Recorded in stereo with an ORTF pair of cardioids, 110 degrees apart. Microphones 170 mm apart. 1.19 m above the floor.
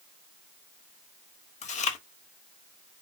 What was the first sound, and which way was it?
Chewing, 45° left.